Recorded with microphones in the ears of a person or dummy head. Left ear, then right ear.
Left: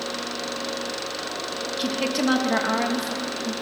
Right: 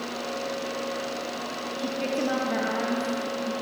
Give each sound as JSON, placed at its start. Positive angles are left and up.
{"t": 1.8, "sound": "a woman speaking", "side_deg": 40, "distance_m": 1.7}